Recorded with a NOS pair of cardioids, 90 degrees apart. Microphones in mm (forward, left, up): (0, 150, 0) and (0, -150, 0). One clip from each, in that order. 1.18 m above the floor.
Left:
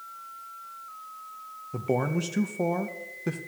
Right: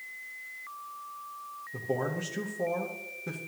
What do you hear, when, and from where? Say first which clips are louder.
1.7 s a man speaking: left 4 dB; 45° left, 0.8 m